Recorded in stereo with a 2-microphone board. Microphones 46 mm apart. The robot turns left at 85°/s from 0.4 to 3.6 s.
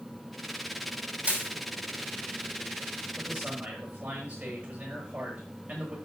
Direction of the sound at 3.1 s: 15° right.